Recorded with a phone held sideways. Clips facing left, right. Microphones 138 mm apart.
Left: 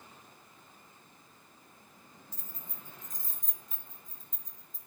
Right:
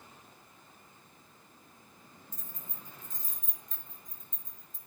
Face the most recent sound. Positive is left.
turn(degrees=50)  # may be behind; listen again after turning